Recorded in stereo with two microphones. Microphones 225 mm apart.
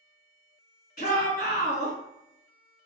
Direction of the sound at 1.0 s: 35° left (ahead or behind).